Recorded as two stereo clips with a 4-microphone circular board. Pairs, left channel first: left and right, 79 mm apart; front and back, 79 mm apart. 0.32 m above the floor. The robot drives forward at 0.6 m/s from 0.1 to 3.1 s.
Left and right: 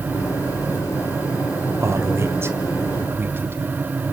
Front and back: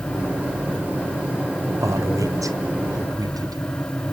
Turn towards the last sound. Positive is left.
turn(degrees=-150)